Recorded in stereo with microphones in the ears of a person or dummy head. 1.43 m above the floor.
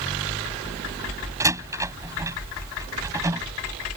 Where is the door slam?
15° right (ahead or behind).